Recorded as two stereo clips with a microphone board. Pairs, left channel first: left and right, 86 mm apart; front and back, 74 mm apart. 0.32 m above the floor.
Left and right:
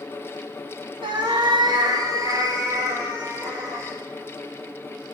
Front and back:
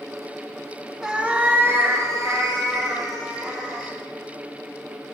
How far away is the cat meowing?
About 0.8 m.